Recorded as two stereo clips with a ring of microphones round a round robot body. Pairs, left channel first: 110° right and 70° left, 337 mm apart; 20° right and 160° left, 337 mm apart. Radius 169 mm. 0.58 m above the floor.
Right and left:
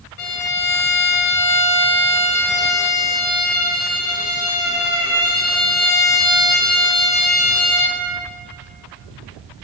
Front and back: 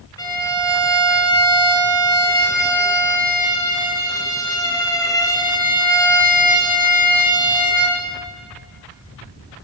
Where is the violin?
100° right, 0.8 m.